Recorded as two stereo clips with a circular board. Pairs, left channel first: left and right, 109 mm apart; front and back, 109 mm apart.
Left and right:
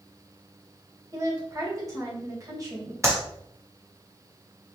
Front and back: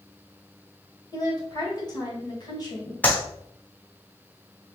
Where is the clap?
65° right, 1.1 m.